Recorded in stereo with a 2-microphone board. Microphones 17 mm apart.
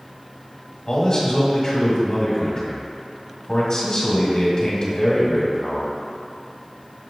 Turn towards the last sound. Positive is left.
turn(degrees=45)  # may be behind; listen again after turning